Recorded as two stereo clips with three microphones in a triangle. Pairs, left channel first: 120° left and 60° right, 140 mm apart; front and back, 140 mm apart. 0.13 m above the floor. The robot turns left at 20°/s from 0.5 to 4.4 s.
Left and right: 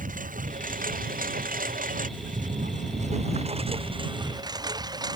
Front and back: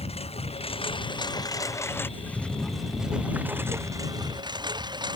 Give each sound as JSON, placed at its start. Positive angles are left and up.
{"t": 0.0, "sound": "a lawn mower", "azimuth_deg": -45}